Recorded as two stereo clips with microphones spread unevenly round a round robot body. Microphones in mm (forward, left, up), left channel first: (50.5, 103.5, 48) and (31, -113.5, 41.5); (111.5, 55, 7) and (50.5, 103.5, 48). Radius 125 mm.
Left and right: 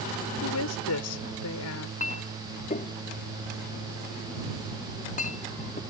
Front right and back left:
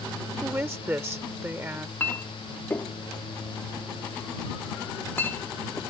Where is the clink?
30° left.